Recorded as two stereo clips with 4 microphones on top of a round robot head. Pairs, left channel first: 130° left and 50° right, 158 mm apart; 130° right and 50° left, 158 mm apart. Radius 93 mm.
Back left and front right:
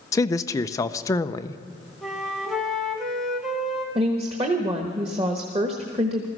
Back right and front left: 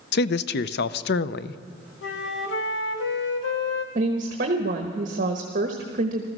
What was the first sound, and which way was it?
A man speaking, 155° right.